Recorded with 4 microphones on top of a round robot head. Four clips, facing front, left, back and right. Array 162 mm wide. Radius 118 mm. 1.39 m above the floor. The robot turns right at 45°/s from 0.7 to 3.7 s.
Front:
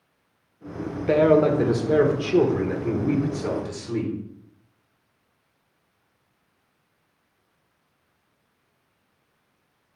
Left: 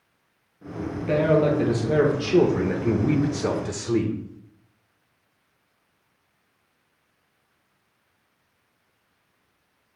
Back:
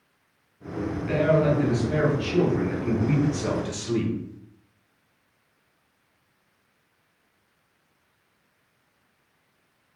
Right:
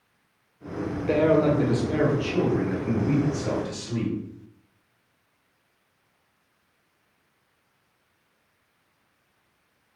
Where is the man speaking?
5° right, 1.4 m; by 4.1 s 115° left, 1.4 m.